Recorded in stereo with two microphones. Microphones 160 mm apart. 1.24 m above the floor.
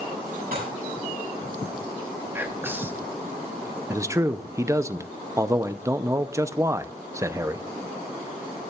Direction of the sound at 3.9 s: 20° right (ahead or behind).